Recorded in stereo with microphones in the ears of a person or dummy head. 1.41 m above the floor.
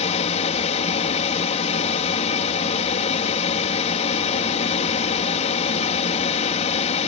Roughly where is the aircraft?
Left.